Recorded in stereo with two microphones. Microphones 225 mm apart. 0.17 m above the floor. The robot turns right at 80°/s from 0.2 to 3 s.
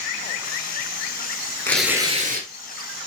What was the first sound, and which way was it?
Tearing paper, 170° left.